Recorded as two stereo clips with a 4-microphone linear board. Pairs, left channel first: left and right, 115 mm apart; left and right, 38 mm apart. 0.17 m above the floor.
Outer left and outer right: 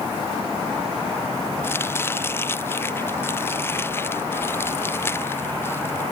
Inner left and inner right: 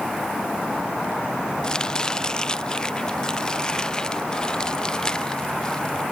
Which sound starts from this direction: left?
Chopping, at 1.6 s.